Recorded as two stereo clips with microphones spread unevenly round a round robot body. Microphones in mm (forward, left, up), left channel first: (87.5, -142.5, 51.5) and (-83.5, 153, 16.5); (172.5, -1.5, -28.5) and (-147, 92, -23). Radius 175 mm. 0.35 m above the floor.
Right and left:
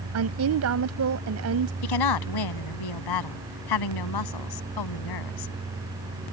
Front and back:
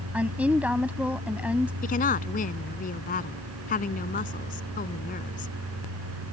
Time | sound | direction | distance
0.1 | a woman speaking | 80° left | ?
1.8 | a woman speaking | 85° right | ?